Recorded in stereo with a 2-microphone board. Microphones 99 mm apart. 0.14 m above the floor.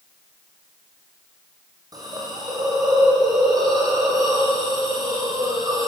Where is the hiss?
40° right (ahead or behind), 6 m.